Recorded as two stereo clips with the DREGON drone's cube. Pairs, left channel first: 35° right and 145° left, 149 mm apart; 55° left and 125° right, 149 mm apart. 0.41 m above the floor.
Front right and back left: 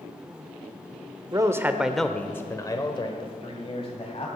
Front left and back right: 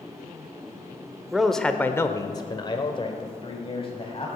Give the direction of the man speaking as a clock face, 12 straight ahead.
7 o'clock.